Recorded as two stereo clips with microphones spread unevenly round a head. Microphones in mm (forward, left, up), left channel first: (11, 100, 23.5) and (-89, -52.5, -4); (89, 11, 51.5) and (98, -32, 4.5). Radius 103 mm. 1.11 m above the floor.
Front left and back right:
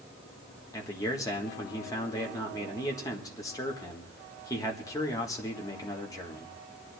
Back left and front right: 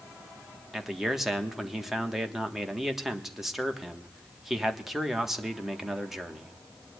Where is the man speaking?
20° right, 1.6 m.